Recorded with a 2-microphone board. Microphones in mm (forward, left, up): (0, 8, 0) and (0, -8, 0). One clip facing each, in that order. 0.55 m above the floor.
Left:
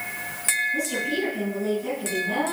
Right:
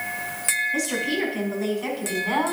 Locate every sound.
0.7 s a woman speaking: 80° right, 4 m; by 2.5 s 75° right (ahead or behind), 4 m